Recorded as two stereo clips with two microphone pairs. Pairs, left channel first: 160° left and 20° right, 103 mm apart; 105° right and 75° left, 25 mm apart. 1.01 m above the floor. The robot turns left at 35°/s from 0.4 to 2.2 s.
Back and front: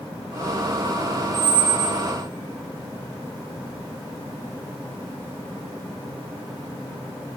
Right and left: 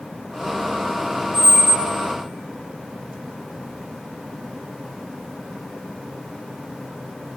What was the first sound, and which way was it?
A squeak, 10° left.